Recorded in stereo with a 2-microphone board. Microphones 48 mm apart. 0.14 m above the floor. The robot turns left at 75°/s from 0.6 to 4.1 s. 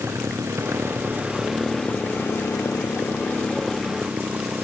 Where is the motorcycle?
90° right; by 4.6 s 25° right (ahead or behind).